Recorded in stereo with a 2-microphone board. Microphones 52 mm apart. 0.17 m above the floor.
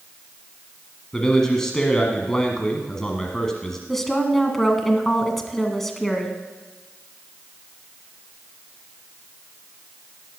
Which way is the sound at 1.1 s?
10° left (ahead or behind).